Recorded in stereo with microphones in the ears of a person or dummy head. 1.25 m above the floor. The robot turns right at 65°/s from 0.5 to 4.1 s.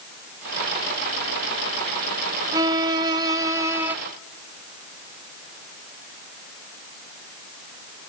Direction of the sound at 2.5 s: 15° right (ahead or behind).